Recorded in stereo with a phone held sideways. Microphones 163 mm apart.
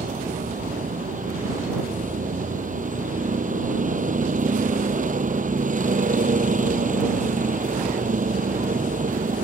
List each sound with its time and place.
0.0 s a vehicle: 55° right (ahead or behind)